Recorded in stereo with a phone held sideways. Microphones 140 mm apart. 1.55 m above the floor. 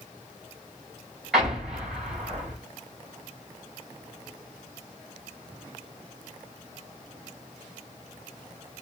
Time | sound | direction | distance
1.3 | an explosion | 5° right (ahead or behind) | 3 m